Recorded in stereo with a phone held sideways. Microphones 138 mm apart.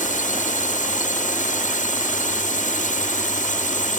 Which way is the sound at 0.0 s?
65° left (ahead or behind).